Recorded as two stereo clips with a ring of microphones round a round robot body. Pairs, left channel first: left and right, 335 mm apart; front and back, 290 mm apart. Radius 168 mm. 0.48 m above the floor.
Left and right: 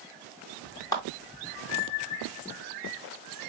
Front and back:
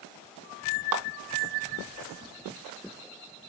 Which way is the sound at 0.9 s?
170° left.